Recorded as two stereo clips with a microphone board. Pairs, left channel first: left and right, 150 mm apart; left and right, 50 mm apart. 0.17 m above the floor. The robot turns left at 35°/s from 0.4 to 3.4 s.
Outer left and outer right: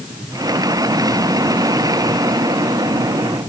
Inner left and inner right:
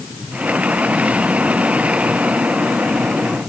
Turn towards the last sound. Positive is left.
No sound to turn to.